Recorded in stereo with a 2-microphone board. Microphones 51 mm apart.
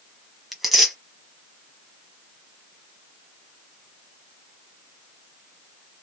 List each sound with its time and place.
0.5 s tearing paper: centre (ahead or behind), 1.2 m